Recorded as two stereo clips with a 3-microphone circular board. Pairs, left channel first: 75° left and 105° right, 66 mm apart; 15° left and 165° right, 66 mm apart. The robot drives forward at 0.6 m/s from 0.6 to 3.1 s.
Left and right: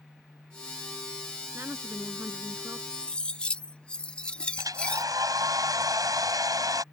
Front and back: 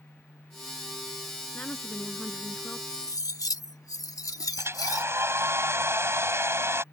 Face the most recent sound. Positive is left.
turn(degrees=-120)